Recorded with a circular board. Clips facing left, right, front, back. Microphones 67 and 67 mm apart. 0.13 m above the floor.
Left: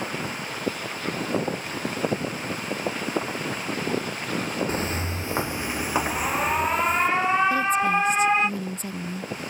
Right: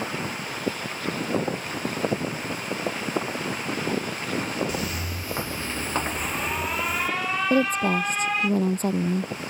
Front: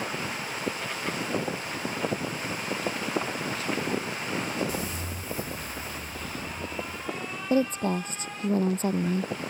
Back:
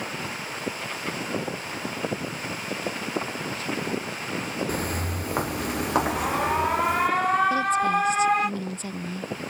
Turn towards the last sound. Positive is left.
turn(degrees=-50)